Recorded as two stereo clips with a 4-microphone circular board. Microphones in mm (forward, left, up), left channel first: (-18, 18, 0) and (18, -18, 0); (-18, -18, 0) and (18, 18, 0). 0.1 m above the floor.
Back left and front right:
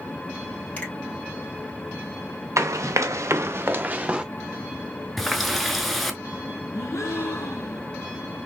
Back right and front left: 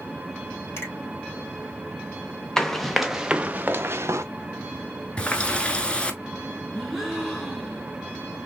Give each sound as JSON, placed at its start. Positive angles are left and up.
{"t": 0.8, "sound": "a finger snap", "azimuth_deg": -165, "distance_m": 2.0}
{"t": 2.6, "sound": "running footsteps", "azimuth_deg": -55, "distance_m": 0.8}
{"t": 5.2, "sound": "a running tap", "azimuth_deg": -135, "distance_m": 0.8}
{"t": 6.7, "sound": "a gasp", "azimuth_deg": 135, "distance_m": 1.2}